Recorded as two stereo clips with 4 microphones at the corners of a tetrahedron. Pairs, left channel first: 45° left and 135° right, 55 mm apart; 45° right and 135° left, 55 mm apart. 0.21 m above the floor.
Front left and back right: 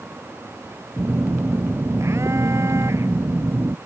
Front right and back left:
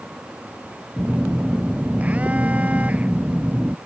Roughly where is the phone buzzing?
Behind.